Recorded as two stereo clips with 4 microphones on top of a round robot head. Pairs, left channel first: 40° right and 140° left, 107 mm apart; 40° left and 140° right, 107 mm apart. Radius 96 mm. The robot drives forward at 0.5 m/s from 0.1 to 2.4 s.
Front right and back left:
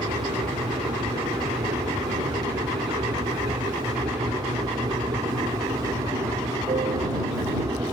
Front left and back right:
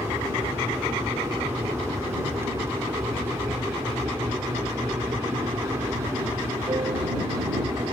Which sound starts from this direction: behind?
An aircraft, at 0.0 s.